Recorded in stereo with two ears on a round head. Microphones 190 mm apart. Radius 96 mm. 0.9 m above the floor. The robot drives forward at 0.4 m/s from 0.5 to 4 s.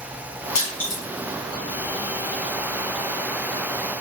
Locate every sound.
0.6 s crushing: 35° left (ahead or behind), 2.5 m; by 1.0 s 40° left (ahead or behind), 2.5 m